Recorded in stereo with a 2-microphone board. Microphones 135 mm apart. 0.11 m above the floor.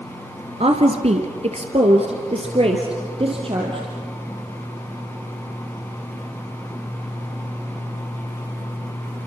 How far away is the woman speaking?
About 1.7 m.